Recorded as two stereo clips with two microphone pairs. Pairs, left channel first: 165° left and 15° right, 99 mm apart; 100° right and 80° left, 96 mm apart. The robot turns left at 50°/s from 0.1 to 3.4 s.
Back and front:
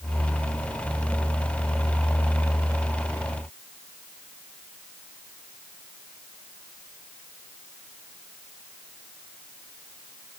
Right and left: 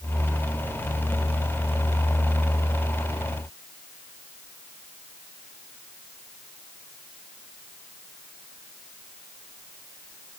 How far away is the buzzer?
No buzzer in this recording.